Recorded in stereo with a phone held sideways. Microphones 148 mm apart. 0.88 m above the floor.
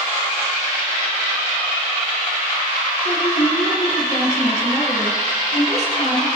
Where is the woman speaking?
50° left (ahead or behind), 5.5 m.